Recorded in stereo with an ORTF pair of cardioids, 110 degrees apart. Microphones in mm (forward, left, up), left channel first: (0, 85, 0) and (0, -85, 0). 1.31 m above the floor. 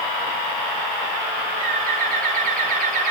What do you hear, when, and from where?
1.6 s a bird: 50° right, 4.5 m